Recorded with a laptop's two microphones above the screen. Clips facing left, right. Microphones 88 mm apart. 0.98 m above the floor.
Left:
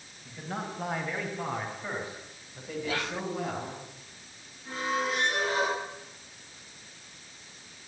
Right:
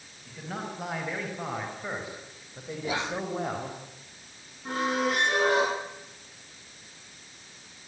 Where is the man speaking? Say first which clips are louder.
Even; 5° right (ahead or behind), 5 m; by 3.8 s 35° right (ahead or behind), 4.5 m.